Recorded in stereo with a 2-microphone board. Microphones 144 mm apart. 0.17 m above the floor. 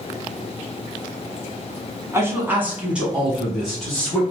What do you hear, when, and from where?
2.1 s a man speaking: 20° right (ahead or behind), 1.0 m; by 4.2 s 5° left (ahead or behind), 1.5 m